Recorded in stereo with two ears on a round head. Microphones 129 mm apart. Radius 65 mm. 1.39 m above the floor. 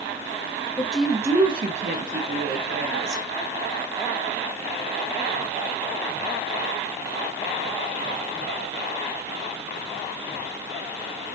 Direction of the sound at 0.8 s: 10° left (ahead or behind).